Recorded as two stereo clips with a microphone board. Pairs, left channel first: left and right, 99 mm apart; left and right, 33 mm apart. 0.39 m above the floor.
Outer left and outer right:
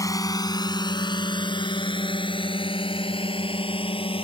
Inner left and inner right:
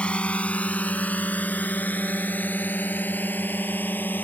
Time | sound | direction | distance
0.0 | a drone | 35° left (ahead or behind) | ?